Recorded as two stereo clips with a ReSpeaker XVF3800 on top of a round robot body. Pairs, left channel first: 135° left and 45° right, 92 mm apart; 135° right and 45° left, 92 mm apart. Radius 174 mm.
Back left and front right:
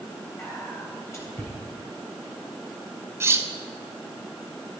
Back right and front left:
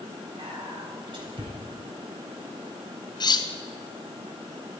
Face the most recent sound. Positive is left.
turn(degrees=-105)